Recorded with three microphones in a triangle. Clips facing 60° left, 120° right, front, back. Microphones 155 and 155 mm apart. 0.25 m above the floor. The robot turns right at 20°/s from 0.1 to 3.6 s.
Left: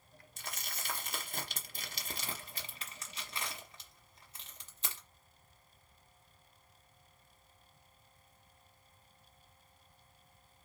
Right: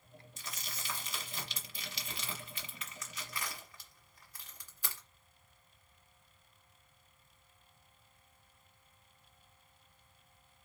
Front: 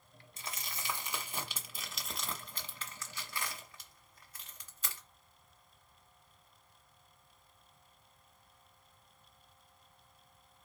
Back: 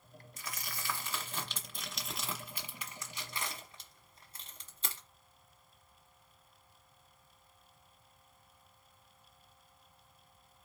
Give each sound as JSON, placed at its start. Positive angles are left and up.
{"t": 0.4, "sound": "crumpling", "azimuth_deg": 55, "distance_m": 1.4}